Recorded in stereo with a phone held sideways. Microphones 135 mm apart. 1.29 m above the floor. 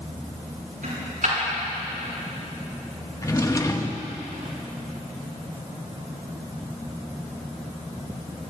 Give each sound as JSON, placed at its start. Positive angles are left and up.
{"t": 0.8, "sound": "a dropped coin", "side_deg": -75, "distance_m": 6.5}
{"t": 3.2, "sound": "a drawer", "side_deg": 25, "distance_m": 0.9}